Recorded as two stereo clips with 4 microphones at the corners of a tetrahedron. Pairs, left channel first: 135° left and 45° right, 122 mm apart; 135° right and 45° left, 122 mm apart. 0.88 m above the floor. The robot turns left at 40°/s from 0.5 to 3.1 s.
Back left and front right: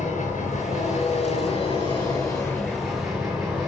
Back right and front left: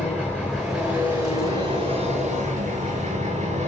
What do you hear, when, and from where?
0.0 s an engine running: 145° left, 7.5 m; by 3.7 s 40° left, 7.5 m